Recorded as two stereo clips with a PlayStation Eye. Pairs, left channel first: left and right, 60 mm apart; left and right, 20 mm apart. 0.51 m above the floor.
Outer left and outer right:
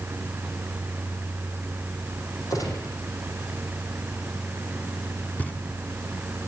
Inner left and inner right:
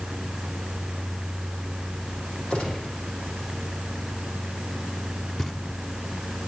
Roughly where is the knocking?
Left.